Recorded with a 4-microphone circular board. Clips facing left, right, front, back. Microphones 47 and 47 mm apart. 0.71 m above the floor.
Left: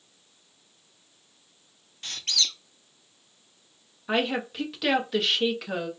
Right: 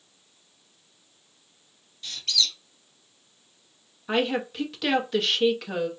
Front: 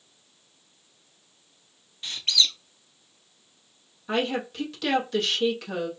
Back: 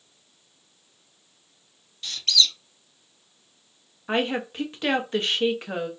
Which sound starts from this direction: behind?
A woman speaking, at 4.1 s.